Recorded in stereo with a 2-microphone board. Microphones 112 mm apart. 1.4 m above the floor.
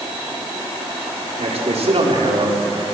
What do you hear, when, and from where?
1.4 s a man speaking: 75° right (ahead or behind), 4.5 m; by 2.6 s 50° right (ahead or behind), 4 m